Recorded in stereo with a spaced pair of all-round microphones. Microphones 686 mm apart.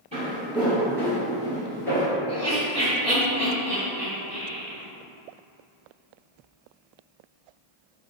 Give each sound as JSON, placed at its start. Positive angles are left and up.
{"t": 0.1, "sound": "footsteps", "side_deg": -10, "distance_m": 1.9}
{"t": 2.3, "sound": "laughter", "side_deg": 5, "distance_m": 1.1}